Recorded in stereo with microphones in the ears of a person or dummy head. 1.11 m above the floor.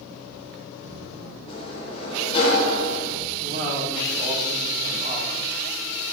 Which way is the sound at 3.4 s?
35° right (ahead or behind).